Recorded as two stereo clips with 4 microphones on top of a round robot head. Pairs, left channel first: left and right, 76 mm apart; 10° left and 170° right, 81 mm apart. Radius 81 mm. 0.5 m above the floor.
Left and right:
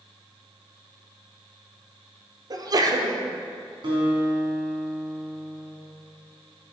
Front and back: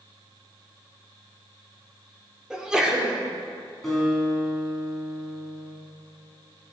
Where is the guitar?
80° right, 4 m.